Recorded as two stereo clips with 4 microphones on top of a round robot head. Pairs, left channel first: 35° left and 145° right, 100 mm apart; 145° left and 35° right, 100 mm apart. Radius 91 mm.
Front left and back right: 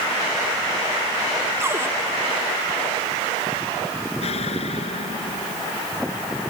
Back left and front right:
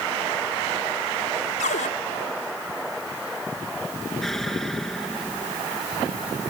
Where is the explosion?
60° left.